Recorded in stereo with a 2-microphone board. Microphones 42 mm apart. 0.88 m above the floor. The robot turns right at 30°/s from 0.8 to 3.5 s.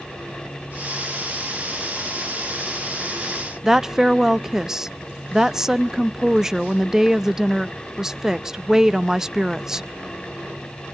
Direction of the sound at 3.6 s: 10° right (ahead or behind).